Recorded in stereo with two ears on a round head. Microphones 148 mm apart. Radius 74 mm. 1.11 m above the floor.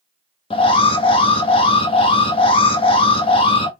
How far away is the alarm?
About 0.9 m.